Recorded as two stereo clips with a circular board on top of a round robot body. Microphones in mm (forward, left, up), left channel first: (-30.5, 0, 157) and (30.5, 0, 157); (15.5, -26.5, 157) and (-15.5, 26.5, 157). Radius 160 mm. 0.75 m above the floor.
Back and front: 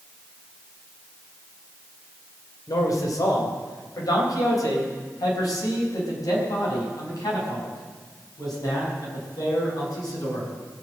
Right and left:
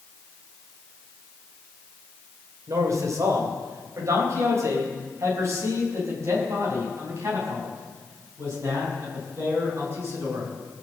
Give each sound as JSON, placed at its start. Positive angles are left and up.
{"t": 2.7, "sound": "a man speaking", "azimuth_deg": 155, "distance_m": 3.0}